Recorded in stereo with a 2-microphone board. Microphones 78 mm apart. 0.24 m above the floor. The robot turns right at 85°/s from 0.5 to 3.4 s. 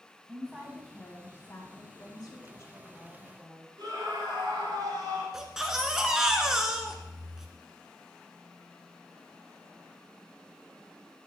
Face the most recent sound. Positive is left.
turn(degrees=-10)  # may be behind; listen again after turning